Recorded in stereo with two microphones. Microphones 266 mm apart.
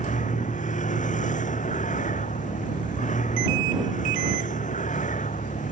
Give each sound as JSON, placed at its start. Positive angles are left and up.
{"t": 0.0, "sound": "a vehicle", "side_deg": 30}